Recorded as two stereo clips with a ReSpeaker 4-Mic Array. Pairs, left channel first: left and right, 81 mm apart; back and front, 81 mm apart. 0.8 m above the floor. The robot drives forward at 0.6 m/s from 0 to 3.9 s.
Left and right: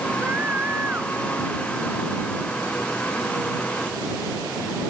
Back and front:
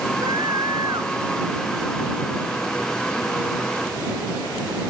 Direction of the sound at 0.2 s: 25° right.